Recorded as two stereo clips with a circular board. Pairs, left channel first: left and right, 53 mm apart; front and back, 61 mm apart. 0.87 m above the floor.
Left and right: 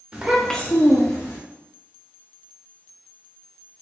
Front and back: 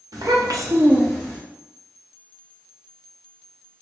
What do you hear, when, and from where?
0.1 s a child speaking: 160° right, 0.8 m; by 1.4 s 85° left, 1.0 m